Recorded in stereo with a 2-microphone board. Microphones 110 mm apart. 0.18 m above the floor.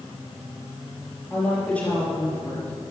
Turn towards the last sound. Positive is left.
turn(degrees=15)  # may be behind; listen again after turning